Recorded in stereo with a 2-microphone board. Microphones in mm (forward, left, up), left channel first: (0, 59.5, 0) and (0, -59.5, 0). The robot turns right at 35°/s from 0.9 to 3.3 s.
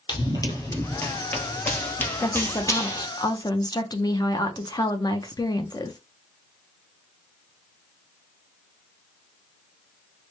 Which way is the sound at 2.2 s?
35° left.